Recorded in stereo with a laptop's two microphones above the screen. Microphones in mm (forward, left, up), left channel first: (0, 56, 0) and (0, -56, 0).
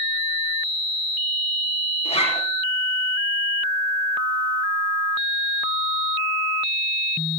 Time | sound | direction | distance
2.0 | a zipper | 65° left (ahead or behind) | 4.5 m